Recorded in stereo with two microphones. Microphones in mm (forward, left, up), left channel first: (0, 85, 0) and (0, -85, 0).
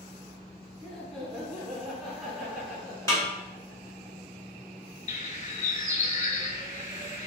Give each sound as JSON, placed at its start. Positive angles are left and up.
{"t": 0.8, "sound": "laughter", "side_deg": 5, "distance_m": 1.2}
{"t": 3.1, "sound": "a snare drum", "side_deg": 20, "distance_m": 1.4}
{"t": 5.1, "sound": "a bird", "side_deg": 45, "distance_m": 0.5}